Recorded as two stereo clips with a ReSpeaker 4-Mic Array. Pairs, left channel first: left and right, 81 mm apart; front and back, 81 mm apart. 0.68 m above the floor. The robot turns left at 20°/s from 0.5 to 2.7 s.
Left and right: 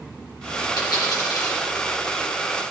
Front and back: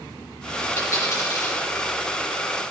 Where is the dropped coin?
60° left, 6.5 m; by 1.6 s 40° left, 6.5 m.